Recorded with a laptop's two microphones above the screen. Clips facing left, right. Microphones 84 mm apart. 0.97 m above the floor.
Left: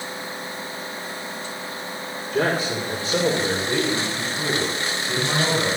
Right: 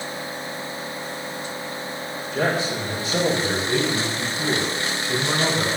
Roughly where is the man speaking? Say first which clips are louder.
Left 1 dB; left.